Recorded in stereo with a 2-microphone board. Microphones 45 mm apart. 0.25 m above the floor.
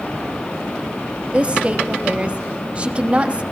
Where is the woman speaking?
25° right (ahead or behind), 1.0 m.